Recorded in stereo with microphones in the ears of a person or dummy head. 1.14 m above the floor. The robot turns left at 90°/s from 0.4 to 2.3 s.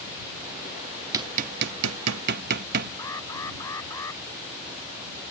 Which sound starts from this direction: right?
Hammering, at 1.1 s.